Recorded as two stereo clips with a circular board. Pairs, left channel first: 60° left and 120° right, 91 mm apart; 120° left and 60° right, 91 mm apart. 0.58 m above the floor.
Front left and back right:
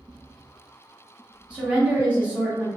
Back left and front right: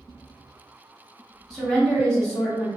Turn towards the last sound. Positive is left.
turn(degrees=-170)